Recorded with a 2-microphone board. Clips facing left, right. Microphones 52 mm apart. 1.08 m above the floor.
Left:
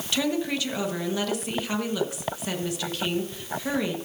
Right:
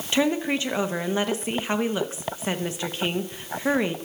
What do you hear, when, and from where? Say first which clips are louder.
0.1 s a woman speaking: right 3 dB; 30° right (ahead or behind), 1.1 m